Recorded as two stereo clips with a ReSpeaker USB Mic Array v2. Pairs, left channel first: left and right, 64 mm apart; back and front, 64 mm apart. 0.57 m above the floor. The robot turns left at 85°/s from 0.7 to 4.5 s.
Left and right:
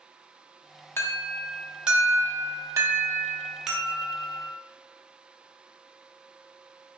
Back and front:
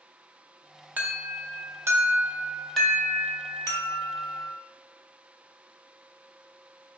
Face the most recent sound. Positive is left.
turn(degrees=115)